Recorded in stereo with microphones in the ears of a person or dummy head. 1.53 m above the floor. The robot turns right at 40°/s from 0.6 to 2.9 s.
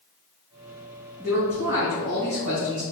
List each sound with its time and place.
1.2 s a man speaking: 165° right, 1.8 m; by 2.8 s 95° right, 1.8 m